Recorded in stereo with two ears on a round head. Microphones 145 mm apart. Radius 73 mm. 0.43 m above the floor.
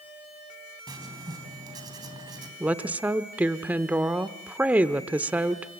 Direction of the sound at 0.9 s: 25° right (ahead or behind).